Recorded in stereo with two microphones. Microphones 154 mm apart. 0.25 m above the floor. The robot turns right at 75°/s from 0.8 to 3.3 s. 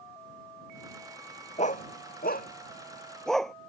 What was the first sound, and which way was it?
A dog barking, 50° left (ahead or behind).